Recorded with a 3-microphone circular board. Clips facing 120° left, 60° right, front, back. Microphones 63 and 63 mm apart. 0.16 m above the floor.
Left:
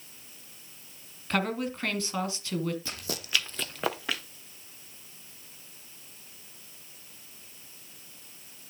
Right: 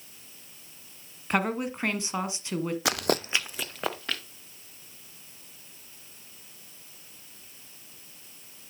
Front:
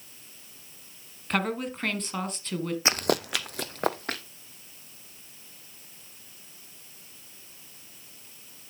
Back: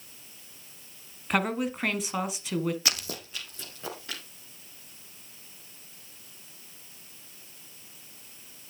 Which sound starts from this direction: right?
A woman speaking, at 1.3 s.